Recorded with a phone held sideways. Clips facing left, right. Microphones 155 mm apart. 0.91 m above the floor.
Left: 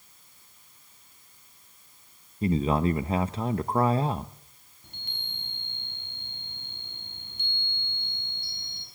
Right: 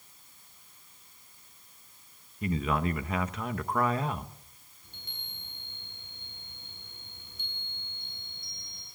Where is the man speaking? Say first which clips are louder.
Left 5 dB; 30° left (ahead or behind), 0.8 m.